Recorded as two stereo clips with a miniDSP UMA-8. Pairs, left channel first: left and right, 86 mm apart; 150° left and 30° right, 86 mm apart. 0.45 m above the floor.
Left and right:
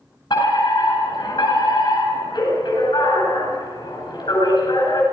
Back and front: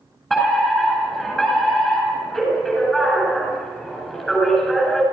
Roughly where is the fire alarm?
Ahead left.